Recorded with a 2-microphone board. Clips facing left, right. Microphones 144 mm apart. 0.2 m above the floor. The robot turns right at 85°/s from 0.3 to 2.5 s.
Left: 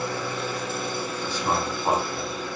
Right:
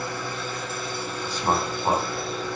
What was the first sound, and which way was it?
An engine running, 75° left.